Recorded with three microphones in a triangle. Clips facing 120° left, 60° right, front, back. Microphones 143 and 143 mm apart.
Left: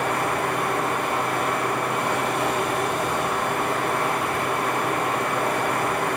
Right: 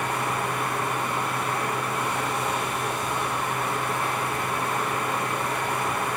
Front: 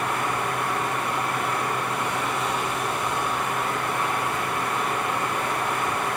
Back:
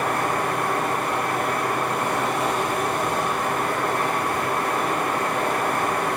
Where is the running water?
150° left, 9 m.